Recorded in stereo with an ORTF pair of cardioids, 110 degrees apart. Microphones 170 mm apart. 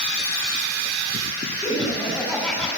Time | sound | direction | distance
1.6 | laughter | 10° left | 9.5 m